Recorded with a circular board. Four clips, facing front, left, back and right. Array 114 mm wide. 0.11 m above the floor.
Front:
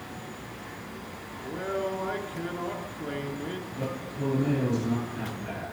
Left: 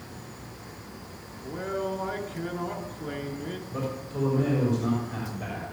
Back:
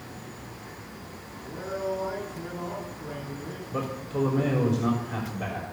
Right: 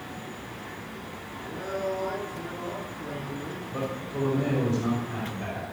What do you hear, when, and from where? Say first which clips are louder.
1.4 s a man speaking: even, front 1 dB; 30° left, 1.7 m
3.7 s a man speaking: right 2 dB, back 4 dB; 175° right, 5.5 m